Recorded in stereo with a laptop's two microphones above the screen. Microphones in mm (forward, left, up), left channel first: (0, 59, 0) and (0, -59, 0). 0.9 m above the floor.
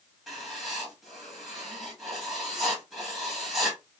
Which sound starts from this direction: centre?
Writing, at 0.3 s.